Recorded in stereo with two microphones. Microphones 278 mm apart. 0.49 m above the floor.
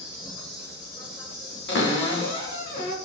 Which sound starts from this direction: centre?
An insect, at 0.0 s.